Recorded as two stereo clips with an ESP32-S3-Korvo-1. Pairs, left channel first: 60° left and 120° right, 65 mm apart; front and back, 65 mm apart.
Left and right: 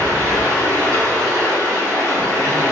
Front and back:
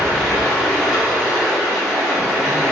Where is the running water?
95° right, 1.4 m.